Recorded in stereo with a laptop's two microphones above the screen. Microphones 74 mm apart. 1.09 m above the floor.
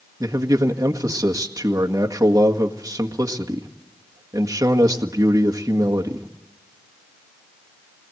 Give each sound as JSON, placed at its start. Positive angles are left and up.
{"t": 0.2, "sound": "a man speaking", "side_deg": -50, "distance_m": 1.8}